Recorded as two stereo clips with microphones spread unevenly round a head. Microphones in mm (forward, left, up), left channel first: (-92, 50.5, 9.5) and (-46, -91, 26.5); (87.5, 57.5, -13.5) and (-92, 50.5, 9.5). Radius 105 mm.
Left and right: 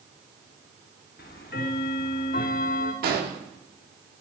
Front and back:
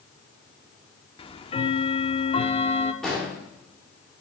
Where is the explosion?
85° right, 1.8 m.